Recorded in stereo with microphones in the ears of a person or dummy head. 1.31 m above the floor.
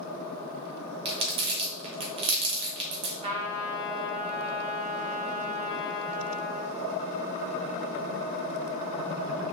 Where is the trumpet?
35° right (ahead or behind), 1.2 m.